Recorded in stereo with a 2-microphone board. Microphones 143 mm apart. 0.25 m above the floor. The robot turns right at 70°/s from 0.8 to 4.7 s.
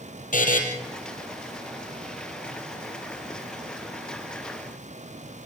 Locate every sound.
0.3 s a buzzer: 70° left (ahead or behind), 3 m